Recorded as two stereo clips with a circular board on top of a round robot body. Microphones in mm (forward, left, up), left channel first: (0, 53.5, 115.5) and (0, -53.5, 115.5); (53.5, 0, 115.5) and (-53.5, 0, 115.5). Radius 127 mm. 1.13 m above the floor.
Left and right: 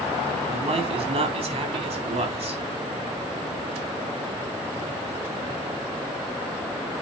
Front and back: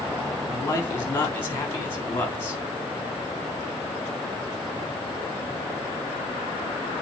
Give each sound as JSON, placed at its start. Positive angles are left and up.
{"t": 0.5, "sound": "a man speaking", "azimuth_deg": -70, "distance_m": 3.5}